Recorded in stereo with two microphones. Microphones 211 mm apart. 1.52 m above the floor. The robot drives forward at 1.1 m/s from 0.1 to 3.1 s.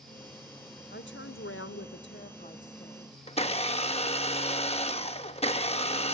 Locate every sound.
0.9 s a woman speaking: 55° left (ahead or behind), 1.2 m; by 3.2 s 30° left (ahead or behind), 2.0 m
3.3 s a blender: 30° left (ahead or behind), 0.9 m